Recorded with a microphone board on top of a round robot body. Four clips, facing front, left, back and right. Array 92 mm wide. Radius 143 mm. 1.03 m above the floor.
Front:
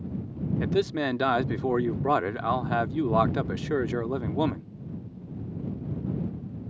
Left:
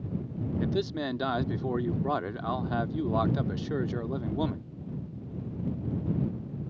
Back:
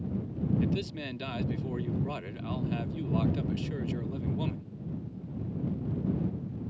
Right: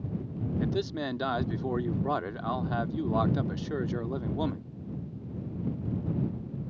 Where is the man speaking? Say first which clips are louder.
Left 1 dB, front 7 dB; straight ahead.